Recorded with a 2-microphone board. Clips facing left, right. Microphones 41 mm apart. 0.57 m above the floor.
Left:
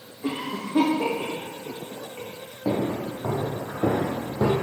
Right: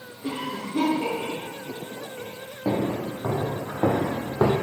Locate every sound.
0.2 s a cough: 40° left (ahead or behind), 1.2 m
2.6 s footsteps: 35° right (ahead or behind), 3 m; by 4.5 s 60° right (ahead or behind), 1.4 m